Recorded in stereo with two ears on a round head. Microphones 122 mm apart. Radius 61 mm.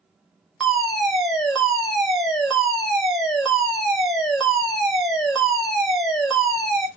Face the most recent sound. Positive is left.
turn(degrees=0)  # may be behind; listen again after turning